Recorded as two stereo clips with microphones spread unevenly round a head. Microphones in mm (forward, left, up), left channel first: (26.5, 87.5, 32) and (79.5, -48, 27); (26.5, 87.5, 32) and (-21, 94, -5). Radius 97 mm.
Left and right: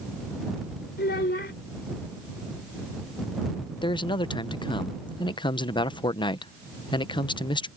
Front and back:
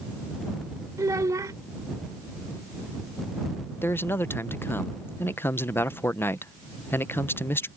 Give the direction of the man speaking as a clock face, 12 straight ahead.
10 o'clock.